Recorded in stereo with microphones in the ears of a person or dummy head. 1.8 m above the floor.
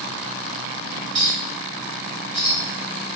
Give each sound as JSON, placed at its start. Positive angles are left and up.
{"t": 1.1, "sound": "a clink", "side_deg": -35, "distance_m": 1.5}